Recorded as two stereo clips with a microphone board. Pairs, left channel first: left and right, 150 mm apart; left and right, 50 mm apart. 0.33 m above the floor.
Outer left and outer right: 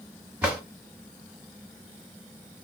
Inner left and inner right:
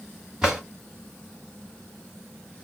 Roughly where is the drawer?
Centre.